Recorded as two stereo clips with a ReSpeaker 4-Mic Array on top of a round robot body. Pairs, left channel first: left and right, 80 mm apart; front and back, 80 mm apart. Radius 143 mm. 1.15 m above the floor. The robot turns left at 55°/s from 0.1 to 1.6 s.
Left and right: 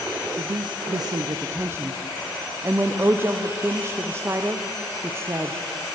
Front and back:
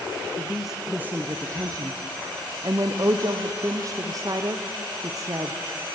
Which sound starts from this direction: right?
A woman speaking, at 0.4 s.